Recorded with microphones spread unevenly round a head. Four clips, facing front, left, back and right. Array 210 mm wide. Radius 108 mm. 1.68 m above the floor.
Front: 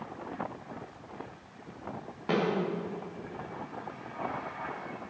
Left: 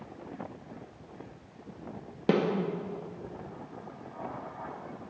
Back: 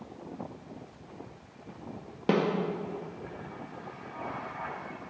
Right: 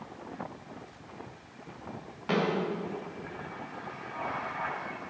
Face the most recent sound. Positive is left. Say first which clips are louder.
# left 3 dB, back 3 dB
turn(degrees=110)